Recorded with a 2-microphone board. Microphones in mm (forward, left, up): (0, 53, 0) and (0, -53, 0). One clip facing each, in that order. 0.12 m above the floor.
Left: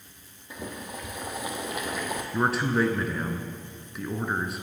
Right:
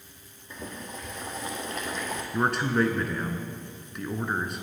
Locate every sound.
0.5 s boiling: 10° left (ahead or behind), 1.8 m
2.3 s a man speaking: centre (ahead or behind), 1.3 m